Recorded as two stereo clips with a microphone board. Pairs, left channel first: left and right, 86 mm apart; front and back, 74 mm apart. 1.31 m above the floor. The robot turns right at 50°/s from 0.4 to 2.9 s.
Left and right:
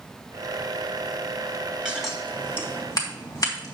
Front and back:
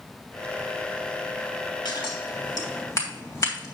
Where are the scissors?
10° right, 3 m; by 3.8 s 40° left, 3 m.